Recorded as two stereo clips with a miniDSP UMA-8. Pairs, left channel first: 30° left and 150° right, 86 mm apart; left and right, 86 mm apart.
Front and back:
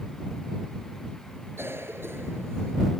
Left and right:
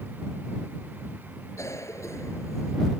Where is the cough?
145° left.